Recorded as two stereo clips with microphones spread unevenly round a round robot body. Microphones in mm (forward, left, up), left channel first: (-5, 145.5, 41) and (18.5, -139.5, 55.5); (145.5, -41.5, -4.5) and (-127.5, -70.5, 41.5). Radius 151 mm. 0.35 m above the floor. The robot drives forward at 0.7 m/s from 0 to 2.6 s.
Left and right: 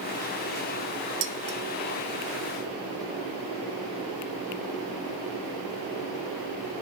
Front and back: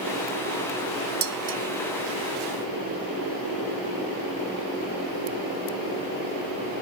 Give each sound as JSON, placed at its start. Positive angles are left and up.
{"t": 1.2, "sound": "dishes clattering", "azimuth_deg": -120, "distance_m": 1.1}